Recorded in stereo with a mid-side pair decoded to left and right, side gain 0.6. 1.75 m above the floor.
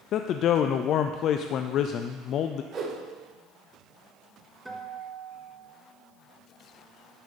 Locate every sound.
0.1 s a man speaking: 55° left, 0.7 m
2.7 s a whoosh: 45° right, 5 m
4.7 s a guitar: 5° right, 3.5 m